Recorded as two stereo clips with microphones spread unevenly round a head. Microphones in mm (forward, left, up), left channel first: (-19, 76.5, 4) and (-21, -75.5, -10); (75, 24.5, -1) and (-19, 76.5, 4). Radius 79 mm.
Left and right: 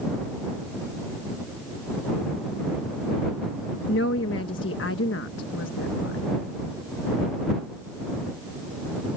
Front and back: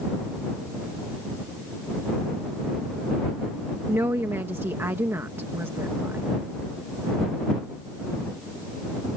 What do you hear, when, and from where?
3.9 s a woman speaking: 85° left